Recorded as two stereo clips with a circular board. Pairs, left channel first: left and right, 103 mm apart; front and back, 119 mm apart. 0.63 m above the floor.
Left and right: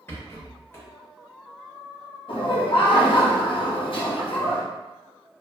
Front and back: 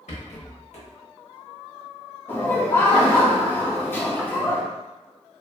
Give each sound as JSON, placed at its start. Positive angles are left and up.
{"t": 0.1, "sound": "a rattle", "azimuth_deg": 20, "distance_m": 0.8}
{"t": 2.3, "sound": "laughter", "azimuth_deg": 70, "distance_m": 0.9}